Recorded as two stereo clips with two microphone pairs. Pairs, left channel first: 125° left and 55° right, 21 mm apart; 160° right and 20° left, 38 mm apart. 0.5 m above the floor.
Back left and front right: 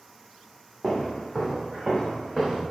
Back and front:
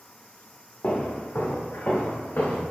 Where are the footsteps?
135° right, 1.8 m.